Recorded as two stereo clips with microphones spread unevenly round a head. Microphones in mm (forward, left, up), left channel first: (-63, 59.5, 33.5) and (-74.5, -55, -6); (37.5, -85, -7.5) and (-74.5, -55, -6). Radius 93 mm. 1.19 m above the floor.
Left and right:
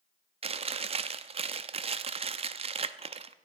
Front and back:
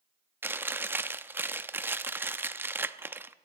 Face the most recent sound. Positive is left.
turn(degrees=-130)